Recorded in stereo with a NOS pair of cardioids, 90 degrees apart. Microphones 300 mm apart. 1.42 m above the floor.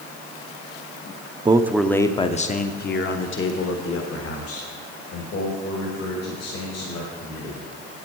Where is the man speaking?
15° right, 0.6 m; by 7.6 s 65° left, 3.5 m.